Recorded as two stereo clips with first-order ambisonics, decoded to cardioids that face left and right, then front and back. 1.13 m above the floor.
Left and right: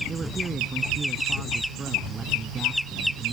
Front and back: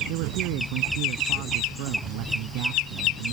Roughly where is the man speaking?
Behind.